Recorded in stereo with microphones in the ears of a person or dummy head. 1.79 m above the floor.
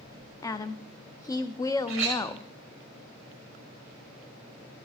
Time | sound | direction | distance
0.4 | a woman speaking | 20° left (ahead or behind) | 0.5 m
1.9 | a clink | 5° right (ahead or behind) | 1.2 m